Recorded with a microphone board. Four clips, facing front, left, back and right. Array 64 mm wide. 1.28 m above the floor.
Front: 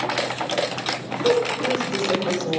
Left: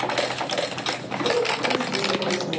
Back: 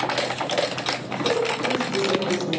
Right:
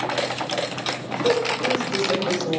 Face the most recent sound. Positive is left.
turn(degrees=-50)